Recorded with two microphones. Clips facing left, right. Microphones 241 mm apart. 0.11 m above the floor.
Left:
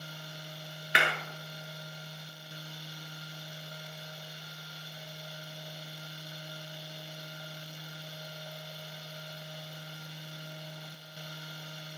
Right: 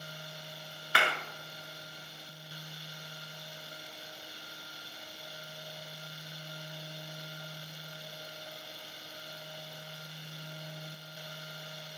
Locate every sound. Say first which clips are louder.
0.9 s a clap: left 1 dB; 20° left (ahead or behind), 1.1 m